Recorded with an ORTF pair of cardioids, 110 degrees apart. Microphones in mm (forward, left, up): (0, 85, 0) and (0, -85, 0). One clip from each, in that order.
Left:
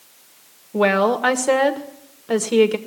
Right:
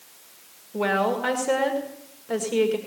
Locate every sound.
0.7 s a woman speaking: 45° left, 1.8 m